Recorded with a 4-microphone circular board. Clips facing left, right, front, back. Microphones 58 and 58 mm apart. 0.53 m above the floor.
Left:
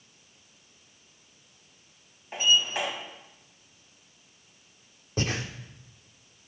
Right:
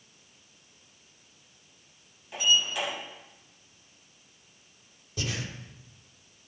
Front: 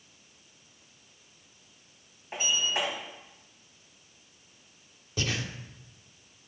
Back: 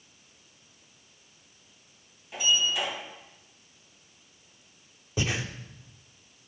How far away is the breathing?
About 0.7 m.